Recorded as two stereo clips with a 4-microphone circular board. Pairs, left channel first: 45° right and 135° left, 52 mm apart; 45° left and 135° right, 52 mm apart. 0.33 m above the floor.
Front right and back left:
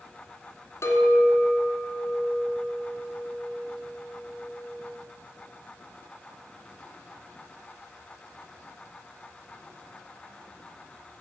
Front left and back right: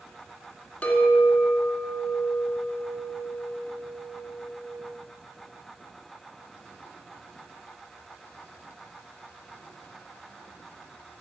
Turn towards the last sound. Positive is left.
turn(degrees=-25)